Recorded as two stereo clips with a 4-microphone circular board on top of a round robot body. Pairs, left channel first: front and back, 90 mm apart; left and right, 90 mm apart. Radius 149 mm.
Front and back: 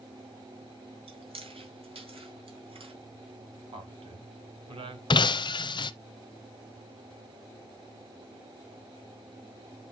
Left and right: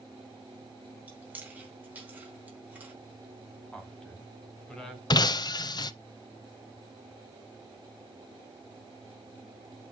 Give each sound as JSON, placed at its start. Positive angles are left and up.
{"t": 1.1, "sound": "chewing", "azimuth_deg": -165, "distance_m": 3.5}
{"t": 3.7, "sound": "a man speaking", "azimuth_deg": 170, "distance_m": 3.5}
{"t": 5.1, "sound": "breaking glass", "azimuth_deg": 40, "distance_m": 0.5}